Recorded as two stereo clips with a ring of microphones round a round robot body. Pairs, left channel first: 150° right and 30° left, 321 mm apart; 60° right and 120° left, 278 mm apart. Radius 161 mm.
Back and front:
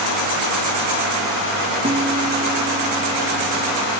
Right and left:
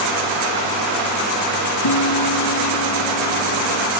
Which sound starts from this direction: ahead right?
A guitar, at 1.8 s.